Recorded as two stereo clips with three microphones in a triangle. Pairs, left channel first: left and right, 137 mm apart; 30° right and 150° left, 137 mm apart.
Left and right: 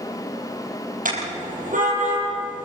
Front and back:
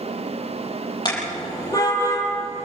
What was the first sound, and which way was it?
A car horn, 90° right.